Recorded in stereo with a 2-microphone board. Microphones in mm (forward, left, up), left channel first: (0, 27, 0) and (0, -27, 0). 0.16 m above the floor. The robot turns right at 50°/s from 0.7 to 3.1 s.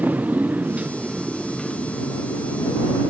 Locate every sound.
0.0 s a motorcycle: 35° right; by 3.1 s 85° left